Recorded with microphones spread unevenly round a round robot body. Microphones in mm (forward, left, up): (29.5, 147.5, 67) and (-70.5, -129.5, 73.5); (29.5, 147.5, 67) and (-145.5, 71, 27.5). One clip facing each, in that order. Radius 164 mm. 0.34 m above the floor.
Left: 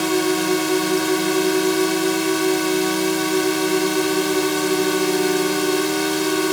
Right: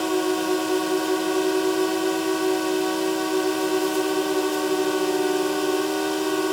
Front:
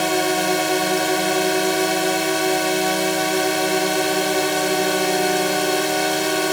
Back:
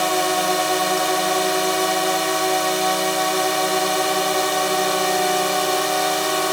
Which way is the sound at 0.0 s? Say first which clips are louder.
Left 3 dB, front 1 dB; 100° left.